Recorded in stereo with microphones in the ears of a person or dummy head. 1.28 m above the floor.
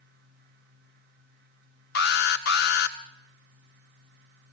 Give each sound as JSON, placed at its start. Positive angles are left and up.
{"t": 0.0, "sound": "a fan", "side_deg": -55, "distance_m": 1.9}
{"t": 1.9, "sound": "an alarm", "side_deg": 55, "distance_m": 2.0}